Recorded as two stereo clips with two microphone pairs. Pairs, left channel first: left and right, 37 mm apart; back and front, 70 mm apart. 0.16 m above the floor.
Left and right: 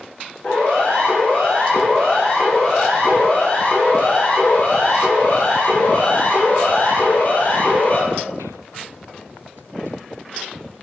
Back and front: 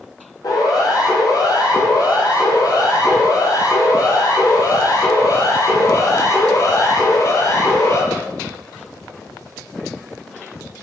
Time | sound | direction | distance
0.4 | a siren | 150° left | 9 m